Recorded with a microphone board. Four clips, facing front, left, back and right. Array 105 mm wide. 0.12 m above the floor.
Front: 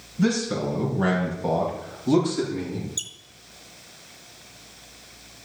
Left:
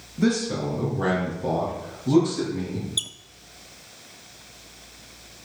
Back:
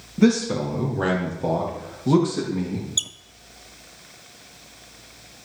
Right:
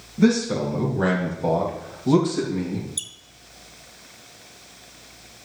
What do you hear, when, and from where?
0.2 s a man speaking: 170° right, 3 m; by 2.9 s 150° right, 4.5 m
3.0 s a squeak: 150° left, 0.5 m